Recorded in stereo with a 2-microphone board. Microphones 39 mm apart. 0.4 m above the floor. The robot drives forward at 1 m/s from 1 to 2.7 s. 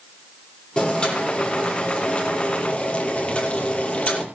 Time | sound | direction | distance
0.8 | boiling | 25° left (ahead or behind) | 7.5 m